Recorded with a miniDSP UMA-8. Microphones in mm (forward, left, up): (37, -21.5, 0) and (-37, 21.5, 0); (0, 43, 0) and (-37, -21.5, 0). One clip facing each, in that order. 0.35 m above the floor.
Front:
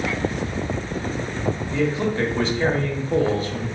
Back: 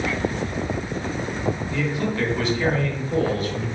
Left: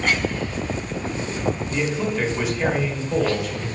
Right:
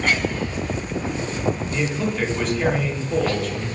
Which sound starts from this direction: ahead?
A man speaking, at 1.7 s.